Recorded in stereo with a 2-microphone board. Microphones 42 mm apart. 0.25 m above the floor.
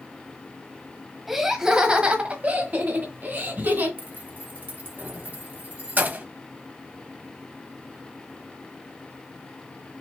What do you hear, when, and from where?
1.3 s laughter: 5° right (ahead or behind), 1.3 m; by 3.9 s 50° right (ahead or behind), 2 m
4.0 s keys jangling: 40° right (ahead or behind), 0.7 m